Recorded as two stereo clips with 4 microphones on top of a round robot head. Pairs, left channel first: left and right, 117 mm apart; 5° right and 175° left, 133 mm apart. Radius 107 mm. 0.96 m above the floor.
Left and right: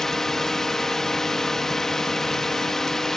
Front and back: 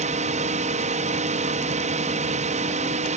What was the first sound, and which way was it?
A drone, 175° left.